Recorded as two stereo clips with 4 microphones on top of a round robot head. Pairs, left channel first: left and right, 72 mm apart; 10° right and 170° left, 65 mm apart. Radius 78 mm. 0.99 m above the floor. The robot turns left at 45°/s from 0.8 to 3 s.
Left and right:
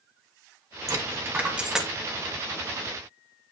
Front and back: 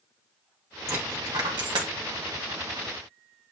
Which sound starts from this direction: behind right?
A dropped coin, at 0.9 s.